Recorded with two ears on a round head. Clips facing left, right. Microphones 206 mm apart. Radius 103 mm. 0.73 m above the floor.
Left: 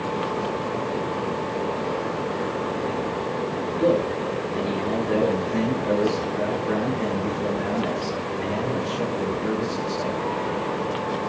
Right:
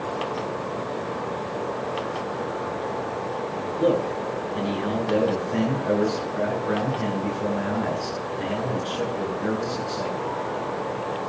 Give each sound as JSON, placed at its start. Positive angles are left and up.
{"t": 3.8, "sound": "a man speaking", "side_deg": -20, "distance_m": 9.5}